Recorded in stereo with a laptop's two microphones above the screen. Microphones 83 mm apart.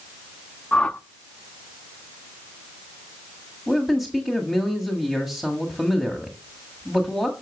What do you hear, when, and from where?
0.7 s a whoosh: 15° left (ahead or behind), 0.9 m
3.7 s a man speaking: centre (ahead or behind), 1.7 m